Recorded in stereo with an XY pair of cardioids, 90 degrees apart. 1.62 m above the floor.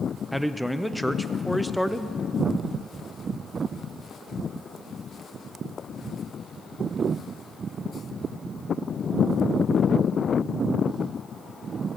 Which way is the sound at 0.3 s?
Straight ahead.